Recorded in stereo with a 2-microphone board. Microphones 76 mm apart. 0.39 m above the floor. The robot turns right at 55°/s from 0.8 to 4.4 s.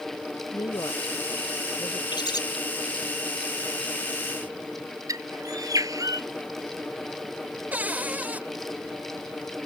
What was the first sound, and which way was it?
A woman speaking, 60° left (ahead or behind).